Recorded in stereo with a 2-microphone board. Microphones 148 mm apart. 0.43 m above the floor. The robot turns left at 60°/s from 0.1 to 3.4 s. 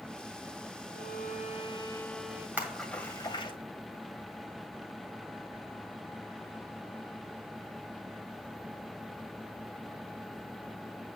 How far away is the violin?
About 0.6 m.